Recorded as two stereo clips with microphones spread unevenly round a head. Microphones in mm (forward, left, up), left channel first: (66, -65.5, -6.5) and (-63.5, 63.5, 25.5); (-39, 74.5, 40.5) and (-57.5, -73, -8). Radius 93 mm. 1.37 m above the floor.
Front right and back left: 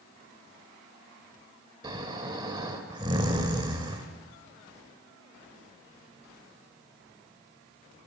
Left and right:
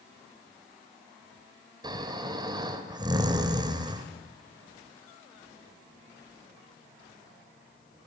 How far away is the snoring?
About 1.9 m.